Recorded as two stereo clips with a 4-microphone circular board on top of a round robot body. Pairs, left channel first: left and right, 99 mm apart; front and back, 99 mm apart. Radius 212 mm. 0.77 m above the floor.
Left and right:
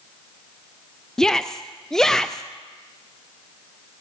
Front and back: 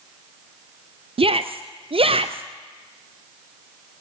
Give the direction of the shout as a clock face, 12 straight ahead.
6 o'clock.